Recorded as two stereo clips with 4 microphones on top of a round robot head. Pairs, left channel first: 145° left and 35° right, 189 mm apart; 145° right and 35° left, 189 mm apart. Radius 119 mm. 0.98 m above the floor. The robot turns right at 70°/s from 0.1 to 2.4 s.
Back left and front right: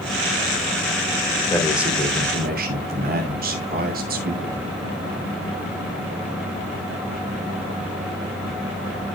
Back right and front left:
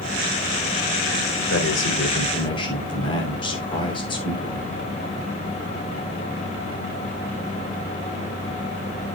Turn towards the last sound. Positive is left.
turn(degrees=-80)